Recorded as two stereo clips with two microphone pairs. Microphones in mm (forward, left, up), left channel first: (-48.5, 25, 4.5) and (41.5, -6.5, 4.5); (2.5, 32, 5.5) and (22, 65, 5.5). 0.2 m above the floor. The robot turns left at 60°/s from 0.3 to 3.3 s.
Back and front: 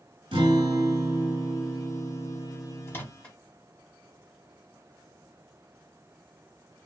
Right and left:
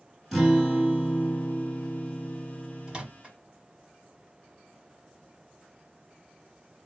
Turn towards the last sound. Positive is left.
turn(degrees=90)